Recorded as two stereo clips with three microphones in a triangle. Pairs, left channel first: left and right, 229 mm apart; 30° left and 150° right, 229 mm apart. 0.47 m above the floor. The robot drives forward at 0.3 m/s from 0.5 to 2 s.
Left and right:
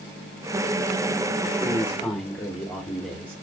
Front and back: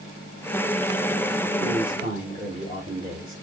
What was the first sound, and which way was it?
A man speaking, 170° left.